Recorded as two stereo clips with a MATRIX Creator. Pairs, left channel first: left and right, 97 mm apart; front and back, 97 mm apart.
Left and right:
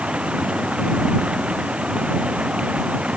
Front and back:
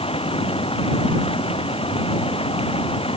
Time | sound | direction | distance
0.0 | running water | 10° right | ?